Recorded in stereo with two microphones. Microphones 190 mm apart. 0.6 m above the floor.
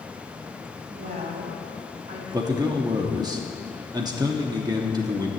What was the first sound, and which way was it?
A woman speaking, 45° right (ahead or behind).